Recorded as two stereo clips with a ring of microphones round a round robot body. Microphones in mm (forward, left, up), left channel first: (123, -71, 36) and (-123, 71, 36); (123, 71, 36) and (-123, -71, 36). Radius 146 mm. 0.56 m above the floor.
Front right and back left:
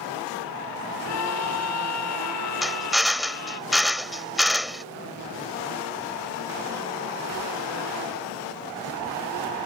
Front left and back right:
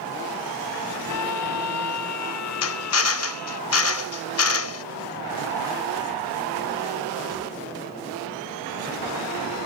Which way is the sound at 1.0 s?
Straight ahead.